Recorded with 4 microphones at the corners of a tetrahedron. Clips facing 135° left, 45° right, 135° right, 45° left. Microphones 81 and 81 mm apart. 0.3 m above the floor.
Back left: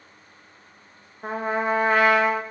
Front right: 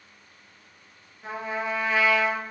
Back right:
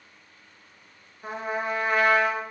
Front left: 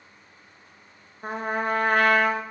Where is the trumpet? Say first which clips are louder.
Back left 6 dB, front left 2 dB; 90° left, 1.2 m.